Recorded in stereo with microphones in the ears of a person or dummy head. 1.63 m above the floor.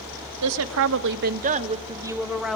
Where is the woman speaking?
75° right (ahead or behind), 1.0 m; by 2.6 s centre (ahead or behind), 1.1 m.